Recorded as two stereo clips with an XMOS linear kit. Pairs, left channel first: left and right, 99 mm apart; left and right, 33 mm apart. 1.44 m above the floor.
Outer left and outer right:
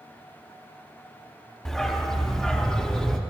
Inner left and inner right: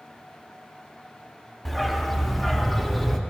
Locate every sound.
1.6 s a dog barking: 5° left (ahead or behind), 1.4 m